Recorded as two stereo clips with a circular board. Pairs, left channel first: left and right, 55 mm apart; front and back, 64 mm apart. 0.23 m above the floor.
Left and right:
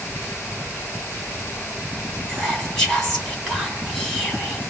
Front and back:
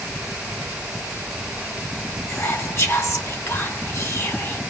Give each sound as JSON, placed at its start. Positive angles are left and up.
{"t": 2.3, "sound": "whispering", "azimuth_deg": 5, "distance_m": 2.5}